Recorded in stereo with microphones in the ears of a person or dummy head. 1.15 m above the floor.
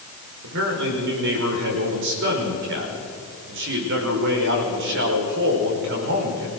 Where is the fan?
No fan in this recording.